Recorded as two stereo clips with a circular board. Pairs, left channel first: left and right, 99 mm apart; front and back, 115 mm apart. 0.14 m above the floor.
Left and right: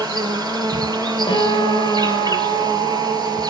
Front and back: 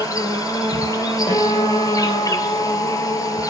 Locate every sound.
0.0 s an insect: 55° right, 1.4 m
1.3 s a guitar: 50° left, 9.5 m